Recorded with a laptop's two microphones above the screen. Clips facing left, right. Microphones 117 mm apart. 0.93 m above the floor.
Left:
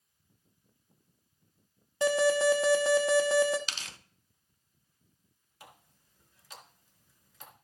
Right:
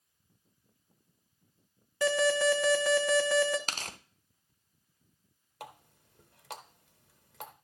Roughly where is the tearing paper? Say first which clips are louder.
Right 4 dB; right.